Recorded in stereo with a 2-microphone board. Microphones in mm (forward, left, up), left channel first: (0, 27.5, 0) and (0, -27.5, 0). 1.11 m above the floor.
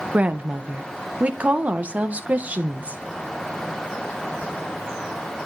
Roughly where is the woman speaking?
Right.